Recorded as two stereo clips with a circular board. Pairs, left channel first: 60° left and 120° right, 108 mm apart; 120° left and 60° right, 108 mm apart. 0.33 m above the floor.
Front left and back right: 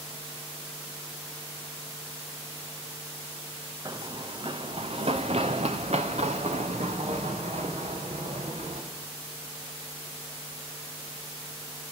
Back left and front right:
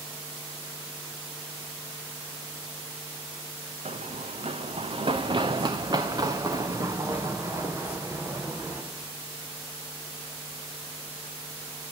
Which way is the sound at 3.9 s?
65° right.